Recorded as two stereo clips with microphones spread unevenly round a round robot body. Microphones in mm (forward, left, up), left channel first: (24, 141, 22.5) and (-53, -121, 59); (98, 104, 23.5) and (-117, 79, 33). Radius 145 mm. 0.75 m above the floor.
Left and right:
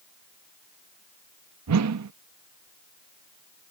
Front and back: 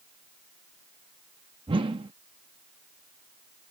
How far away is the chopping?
No chopping in this recording.